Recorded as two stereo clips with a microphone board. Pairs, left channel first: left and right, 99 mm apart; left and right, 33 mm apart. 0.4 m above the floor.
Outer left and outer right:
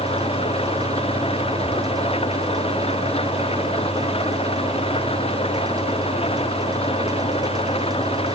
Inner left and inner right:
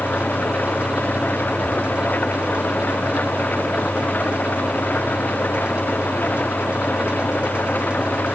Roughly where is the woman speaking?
No woman speaking in this recording.